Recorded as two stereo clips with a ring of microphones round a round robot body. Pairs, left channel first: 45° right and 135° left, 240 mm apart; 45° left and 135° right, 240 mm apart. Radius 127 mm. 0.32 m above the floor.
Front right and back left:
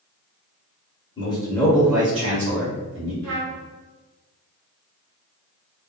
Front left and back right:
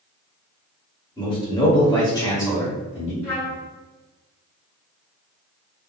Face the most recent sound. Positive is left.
turn(degrees=125)